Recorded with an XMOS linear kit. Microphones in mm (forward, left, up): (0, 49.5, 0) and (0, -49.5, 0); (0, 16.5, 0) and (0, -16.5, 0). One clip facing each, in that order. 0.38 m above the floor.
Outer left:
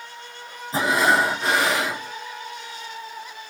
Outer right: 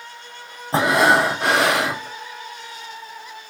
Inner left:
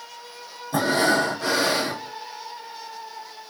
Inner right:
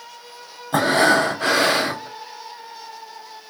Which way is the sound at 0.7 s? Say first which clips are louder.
Outer right 4 dB, inner right 4 dB; 65° right (ahead or behind).